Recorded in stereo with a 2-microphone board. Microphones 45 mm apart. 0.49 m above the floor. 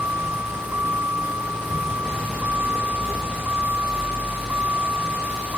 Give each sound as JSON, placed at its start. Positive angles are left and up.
{"t": 0.0, "sound": "a vehicle", "side_deg": -45}